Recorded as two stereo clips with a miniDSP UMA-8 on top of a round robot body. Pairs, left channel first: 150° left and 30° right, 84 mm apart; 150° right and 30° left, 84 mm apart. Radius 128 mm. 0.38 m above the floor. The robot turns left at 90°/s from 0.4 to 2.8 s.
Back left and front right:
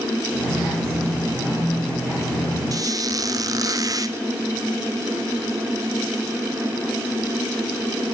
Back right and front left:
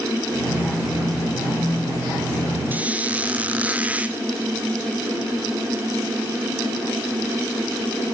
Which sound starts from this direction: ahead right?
A squeak, at 2.7 s.